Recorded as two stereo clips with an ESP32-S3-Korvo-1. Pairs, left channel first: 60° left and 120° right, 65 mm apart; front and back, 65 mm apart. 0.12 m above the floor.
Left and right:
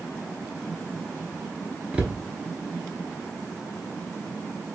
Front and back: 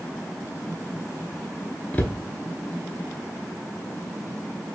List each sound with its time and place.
1.9 s a cupboard door: 55° right, 0.6 m